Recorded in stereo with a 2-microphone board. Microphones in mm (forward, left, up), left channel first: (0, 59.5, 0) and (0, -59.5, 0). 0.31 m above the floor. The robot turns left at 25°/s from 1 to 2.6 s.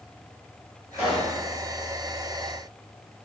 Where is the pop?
45° left (ahead or behind), 1.9 m; by 1.3 s 50° left (ahead or behind), 1.9 m.